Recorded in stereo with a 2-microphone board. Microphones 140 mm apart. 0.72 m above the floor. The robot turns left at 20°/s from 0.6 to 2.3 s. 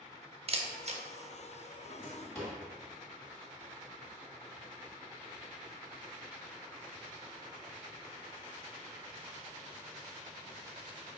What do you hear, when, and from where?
0.5 s a camera shutter: 45° right (ahead or behind), 0.6 m; by 1.0 s 50° right (ahead or behind), 0.6 m
1.8 s a drawer: 10° left (ahead or behind), 1.8 m; by 2.6 s 20° left (ahead or behind), 1.8 m